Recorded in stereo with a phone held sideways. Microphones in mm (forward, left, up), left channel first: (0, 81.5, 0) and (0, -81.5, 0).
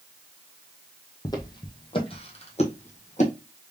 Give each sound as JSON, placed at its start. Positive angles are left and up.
{"t": 1.2, "sound": "footsteps", "side_deg": 25, "distance_m": 1.4}